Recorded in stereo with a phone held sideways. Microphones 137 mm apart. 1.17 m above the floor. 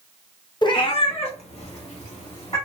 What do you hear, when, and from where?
0.6 s a cat meowing: 30° left (ahead or behind), 0.5 m; by 2.6 s 50° left (ahead or behind), 1.9 m